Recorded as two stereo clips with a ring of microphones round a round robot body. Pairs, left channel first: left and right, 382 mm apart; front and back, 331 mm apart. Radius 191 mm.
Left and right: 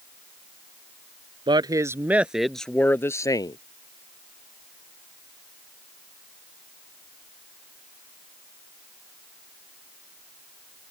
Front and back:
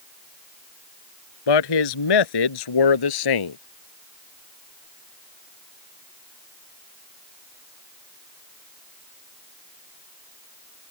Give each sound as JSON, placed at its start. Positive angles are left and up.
{"t": 1.5, "sound": "a man speaking", "azimuth_deg": -10}